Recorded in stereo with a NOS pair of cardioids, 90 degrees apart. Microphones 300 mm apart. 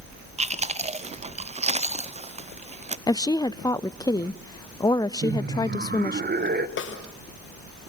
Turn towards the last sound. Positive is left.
turn(degrees=40)